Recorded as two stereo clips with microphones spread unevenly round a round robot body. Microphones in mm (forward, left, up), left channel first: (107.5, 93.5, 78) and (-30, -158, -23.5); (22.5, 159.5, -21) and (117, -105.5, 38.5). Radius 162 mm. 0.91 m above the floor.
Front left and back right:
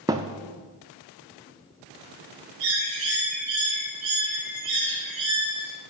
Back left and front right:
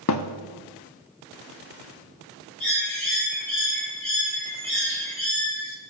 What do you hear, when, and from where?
0.1 s a thud: 155° left, 0.5 m
2.6 s a bird: 165° right, 3.5 m